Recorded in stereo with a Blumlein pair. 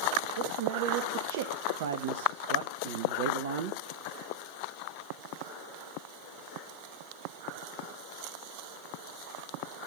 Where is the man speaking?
50° right, 1.3 m.